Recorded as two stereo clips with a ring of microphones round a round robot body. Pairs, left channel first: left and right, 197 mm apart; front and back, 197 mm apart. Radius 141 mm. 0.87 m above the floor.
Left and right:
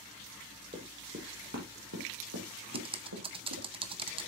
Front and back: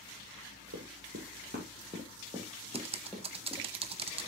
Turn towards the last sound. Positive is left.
turn(degrees=-140)